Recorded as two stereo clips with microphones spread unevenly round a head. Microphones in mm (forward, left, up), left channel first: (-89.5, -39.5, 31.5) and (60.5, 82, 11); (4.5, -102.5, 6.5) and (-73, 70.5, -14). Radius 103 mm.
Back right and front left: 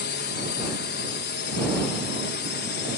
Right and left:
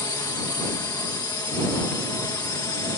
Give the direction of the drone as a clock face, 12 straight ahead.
4 o'clock.